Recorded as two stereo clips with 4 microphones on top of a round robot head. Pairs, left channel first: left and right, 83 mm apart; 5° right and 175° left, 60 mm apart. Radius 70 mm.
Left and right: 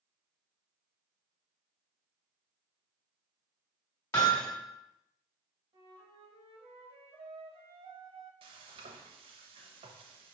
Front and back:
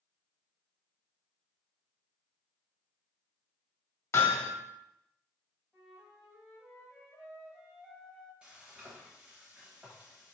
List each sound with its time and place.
4.1 s hammering: 30° left, 1.4 m
5.7 s a flute: 90° right, 1.2 m
8.4 s frying: 105° right, 0.6 m